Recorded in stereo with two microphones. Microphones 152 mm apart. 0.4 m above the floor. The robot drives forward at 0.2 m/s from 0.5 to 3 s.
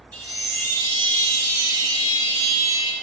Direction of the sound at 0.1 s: 25° right (ahead or behind).